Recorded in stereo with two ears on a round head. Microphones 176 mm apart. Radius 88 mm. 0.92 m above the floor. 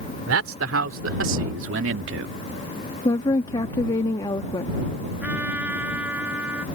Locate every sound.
0.3 s a man speaking: 80° right; by 2.3 s 70° right (ahead or behind)
3.0 s a woman speaking: 20° left (ahead or behind)
5.2 s a trumpet: 10° right (ahead or behind)